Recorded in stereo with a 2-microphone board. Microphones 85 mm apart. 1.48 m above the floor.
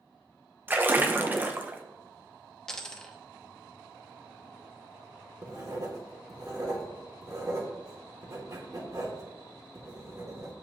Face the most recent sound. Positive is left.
turn(degrees=-45)  # may be behind; listen again after turning